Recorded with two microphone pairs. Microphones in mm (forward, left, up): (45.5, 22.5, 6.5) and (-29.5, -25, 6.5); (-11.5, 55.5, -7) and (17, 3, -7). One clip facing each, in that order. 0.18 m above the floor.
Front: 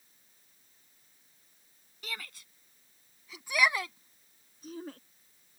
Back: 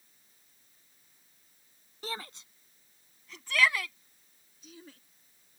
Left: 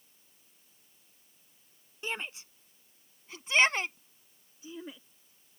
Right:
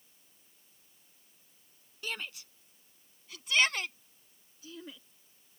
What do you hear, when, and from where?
2.0 s a shout: 175° left; by 5.0 s 50° left